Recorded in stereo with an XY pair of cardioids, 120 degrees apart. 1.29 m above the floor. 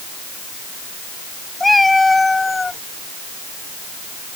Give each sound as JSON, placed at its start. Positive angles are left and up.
{"t": 1.6, "sound": "a cat meowing", "azimuth_deg": 10}